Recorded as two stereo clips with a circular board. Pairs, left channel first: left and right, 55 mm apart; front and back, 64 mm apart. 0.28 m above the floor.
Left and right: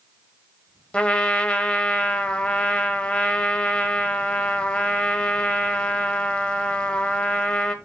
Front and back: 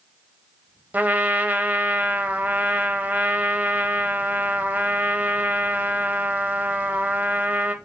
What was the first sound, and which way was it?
A trumpet, 140° left.